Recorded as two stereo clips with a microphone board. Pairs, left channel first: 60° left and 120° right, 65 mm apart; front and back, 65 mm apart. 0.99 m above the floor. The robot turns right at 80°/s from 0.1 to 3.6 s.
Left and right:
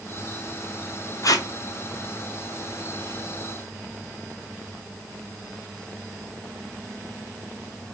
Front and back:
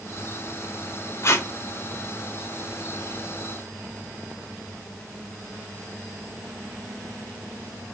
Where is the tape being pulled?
35° left, 0.7 m; by 1.5 s 55° left, 0.7 m.